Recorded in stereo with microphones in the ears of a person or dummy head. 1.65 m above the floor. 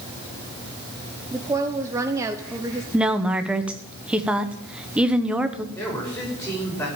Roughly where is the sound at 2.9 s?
Centre.